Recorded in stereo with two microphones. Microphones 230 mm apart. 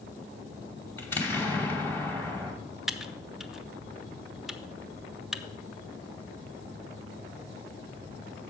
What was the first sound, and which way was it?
An explosion, 10° left (ahead or behind).